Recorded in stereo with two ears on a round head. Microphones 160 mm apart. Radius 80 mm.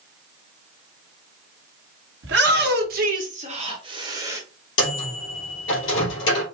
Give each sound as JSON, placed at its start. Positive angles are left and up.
{"t": 2.2, "sound": "a shout", "side_deg": -65, "distance_m": 1.3}
{"t": 4.8, "sound": "a microwave", "side_deg": 70, "distance_m": 2.5}